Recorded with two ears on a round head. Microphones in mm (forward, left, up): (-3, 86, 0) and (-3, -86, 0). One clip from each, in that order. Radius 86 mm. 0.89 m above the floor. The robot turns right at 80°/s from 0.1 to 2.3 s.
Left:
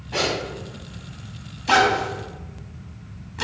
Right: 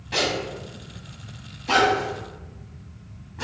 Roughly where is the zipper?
Right.